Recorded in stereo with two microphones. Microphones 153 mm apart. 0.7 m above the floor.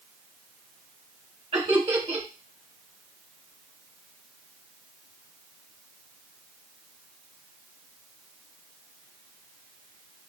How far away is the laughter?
About 1.5 m.